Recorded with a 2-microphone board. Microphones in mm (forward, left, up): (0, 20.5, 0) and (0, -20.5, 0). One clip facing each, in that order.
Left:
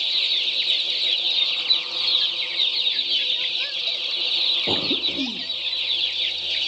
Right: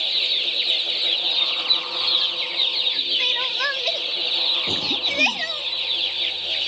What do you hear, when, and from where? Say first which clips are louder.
3.2 s crying: right 3 dB; 65° right (ahead or behind)
4.7 s a cough: even; 25° left (ahead or behind)